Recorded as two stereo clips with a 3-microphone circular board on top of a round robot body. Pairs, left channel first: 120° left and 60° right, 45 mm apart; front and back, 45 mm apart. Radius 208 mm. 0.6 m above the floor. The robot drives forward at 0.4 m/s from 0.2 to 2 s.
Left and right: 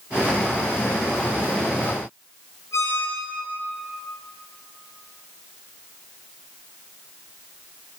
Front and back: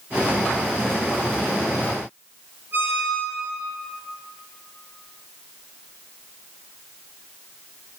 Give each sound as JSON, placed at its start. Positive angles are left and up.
{"t": 2.7, "sound": "a squeak", "azimuth_deg": 135, "distance_m": 7.0}